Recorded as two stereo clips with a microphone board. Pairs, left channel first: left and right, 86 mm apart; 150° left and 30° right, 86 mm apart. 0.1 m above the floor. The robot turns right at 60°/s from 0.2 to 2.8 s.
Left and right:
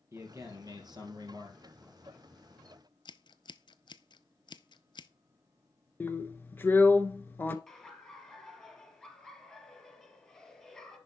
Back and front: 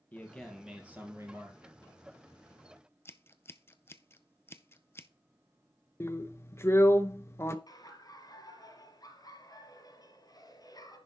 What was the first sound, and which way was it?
A man speaking, 140° right.